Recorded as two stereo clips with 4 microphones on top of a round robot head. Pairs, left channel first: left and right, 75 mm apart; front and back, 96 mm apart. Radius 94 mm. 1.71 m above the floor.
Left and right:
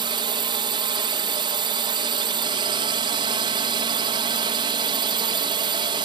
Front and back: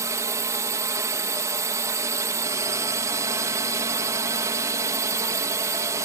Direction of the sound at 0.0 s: 115° right.